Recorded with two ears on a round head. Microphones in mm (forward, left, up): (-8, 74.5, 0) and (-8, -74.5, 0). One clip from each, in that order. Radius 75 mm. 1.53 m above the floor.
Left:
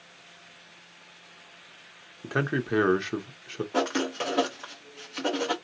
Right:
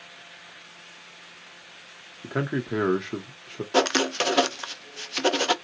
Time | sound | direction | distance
2.2 | a man speaking | 20° left (ahead or behind) | 0.7 m
3.7 | writing | 65° right (ahead or behind) | 0.5 m